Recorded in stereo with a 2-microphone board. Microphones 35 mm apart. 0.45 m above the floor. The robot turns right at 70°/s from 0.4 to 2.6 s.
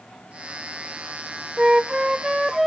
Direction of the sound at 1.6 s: 25° right (ahead or behind).